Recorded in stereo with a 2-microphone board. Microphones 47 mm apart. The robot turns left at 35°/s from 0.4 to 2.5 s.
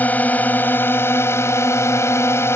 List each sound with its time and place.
0.0 s a drone: 145° left; by 2.6 s 70° left